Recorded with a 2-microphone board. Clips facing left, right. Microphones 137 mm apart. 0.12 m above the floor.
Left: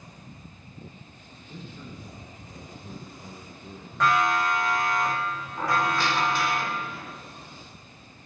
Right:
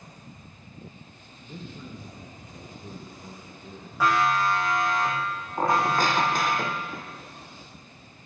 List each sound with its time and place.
1.4 s a man speaking: 45° right (ahead or behind), 2.5 m; by 3.9 s 15° right (ahead or behind), 3 m
4.0 s a siren: 10° right (ahead or behind), 9 m; by 6.6 s 30° right (ahead or behind), 9 m
5.6 s a squeak: 45° right (ahead or behind), 1.7 m